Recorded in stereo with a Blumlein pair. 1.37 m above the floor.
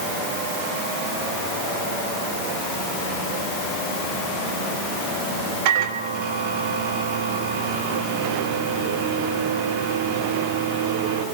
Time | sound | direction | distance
5.7 | a microwave | 45° right | 2.5 m